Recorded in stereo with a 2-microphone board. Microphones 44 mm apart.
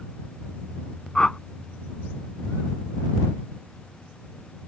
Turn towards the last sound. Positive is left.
turn(degrees=20)  # may be behind; listen again after turning